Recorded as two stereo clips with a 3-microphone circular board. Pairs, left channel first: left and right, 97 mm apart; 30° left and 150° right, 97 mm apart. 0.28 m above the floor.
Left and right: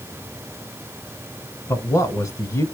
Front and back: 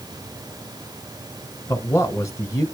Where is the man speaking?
65° left, 1.3 m.